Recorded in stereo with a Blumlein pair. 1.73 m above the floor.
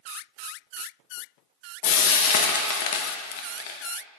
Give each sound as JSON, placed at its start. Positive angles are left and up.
{"t": 1.8, "sound": "frying", "azimuth_deg": 50, "distance_m": 0.5}